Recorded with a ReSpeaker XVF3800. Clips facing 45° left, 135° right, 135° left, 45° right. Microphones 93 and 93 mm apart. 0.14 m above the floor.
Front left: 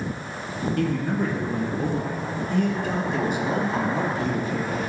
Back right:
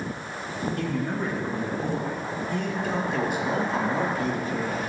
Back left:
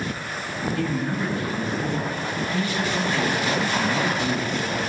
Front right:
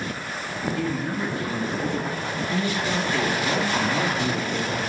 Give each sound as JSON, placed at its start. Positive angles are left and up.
{"t": 0.8, "sound": "a man speaking", "azimuth_deg": 40, "distance_m": 3.0}